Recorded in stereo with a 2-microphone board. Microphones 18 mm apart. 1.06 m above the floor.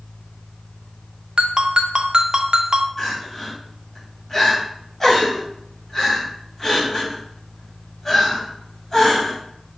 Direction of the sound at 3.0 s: 20° left (ahead or behind).